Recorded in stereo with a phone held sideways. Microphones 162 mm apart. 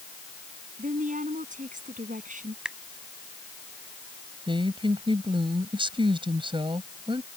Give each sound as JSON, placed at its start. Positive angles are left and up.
{"t": 0.8, "sound": "a woman speaking", "side_deg": -50}
{"t": 2.6, "sound": "a finger snap", "side_deg": -5}
{"t": 4.5, "sound": "a woman speaking", "side_deg": -30}